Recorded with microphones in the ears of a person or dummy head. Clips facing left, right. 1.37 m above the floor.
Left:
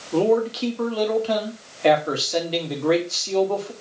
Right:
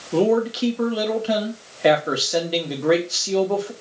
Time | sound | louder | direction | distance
0.1 | a man speaking | right 1 dB | 15° right (ahead or behind) | 2 m